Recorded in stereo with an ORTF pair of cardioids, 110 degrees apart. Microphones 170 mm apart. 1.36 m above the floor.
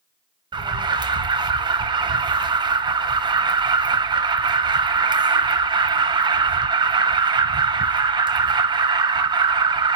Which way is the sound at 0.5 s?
25° right.